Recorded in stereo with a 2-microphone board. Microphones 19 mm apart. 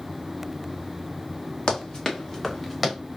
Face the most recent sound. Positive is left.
turn(degrees=-5)  # may be behind; listen again after turning